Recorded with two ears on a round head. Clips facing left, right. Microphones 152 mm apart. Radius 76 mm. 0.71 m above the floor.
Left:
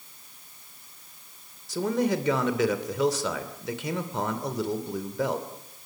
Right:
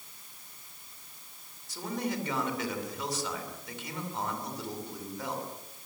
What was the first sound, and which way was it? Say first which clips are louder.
A man speaking: left 9 dB; 60° left (ahead or behind).